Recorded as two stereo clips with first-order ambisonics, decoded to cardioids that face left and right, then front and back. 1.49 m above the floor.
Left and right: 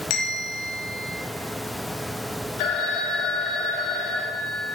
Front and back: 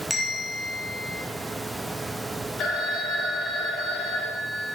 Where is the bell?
90° left, 2.5 m.